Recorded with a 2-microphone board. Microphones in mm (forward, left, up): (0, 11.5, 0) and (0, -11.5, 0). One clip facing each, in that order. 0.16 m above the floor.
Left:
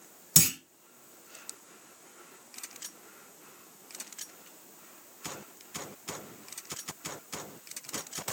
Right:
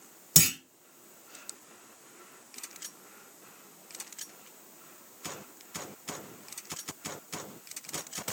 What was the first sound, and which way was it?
A clunk, 15° right (ahead or behind).